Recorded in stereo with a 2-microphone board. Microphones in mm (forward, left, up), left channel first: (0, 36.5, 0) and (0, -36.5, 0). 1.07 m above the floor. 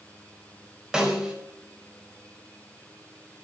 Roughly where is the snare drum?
Centre.